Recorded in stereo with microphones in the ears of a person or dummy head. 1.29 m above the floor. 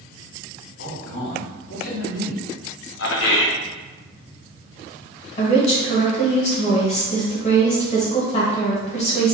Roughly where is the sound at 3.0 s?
Left.